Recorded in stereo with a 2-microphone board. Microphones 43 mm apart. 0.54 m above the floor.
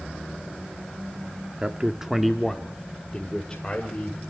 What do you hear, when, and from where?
1.6 s a man speaking: 25° right (ahead or behind), 0.7 m; by 4.2 s 20° left (ahead or behind), 1.9 m